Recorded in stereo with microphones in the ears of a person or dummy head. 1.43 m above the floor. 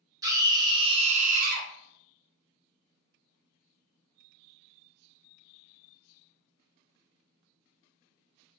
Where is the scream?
20° right (ahead or behind), 1.3 m; by 1.7 s 55° right (ahead or behind), 0.6 m.